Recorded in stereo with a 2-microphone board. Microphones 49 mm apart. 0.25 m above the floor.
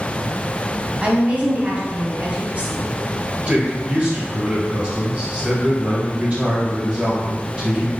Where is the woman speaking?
25° right (ahead or behind), 1.6 m.